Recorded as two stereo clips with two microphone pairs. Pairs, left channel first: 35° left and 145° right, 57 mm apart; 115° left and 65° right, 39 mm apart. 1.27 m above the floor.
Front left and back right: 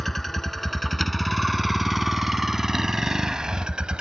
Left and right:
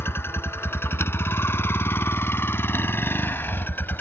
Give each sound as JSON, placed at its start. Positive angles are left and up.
{"t": 0.0, "sound": "a vehicle", "azimuth_deg": 125}